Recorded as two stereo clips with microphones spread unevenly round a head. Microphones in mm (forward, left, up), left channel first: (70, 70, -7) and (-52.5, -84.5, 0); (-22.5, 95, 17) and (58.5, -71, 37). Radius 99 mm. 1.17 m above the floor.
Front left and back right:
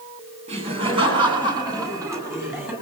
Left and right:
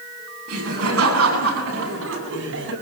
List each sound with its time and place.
0.5 s laughter: 70° right, 9.5 m; by 2.7 s 45° right, 8.5 m